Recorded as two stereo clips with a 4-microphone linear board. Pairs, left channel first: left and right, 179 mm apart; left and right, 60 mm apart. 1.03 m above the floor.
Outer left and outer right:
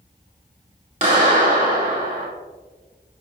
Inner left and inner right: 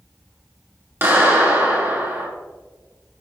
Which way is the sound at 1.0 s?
40° right (ahead or behind).